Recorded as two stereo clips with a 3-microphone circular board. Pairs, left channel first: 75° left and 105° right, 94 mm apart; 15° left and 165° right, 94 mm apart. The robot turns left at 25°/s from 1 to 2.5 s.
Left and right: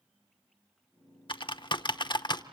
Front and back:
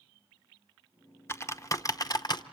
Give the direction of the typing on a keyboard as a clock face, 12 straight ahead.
10 o'clock.